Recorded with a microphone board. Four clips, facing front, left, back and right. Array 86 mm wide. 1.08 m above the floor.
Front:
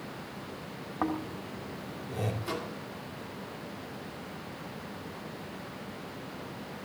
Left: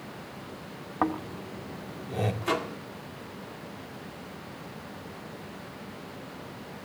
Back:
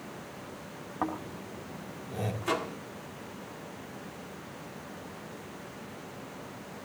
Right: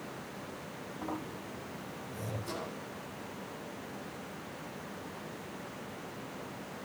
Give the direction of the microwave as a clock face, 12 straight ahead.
8 o'clock.